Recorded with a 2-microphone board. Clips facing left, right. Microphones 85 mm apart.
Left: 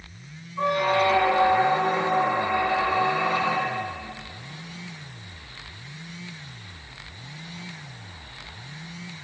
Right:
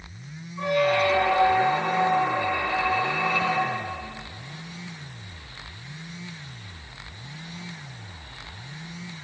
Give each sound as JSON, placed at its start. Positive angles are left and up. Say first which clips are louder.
{"t": 0.6, "sound": "a squeak", "louder": "even", "side_deg": 35, "distance_m": 2.0}